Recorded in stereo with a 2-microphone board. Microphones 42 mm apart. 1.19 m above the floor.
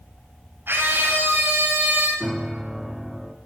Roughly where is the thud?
No thud in this recording.